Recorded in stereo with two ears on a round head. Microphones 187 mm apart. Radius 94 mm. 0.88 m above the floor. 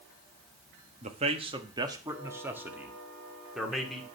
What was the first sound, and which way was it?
A man speaking, 35° right (ahead or behind).